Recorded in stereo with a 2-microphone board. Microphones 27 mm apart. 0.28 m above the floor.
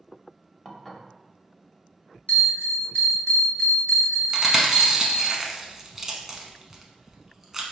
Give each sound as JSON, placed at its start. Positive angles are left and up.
{"t": 0.7, "sound": "dishes clattering", "side_deg": 5, "distance_m": 0.6}
{"t": 2.3, "sound": "a bell", "side_deg": 40, "distance_m": 1.9}
{"t": 4.3, "sound": "chewing", "side_deg": -10, "distance_m": 0.7}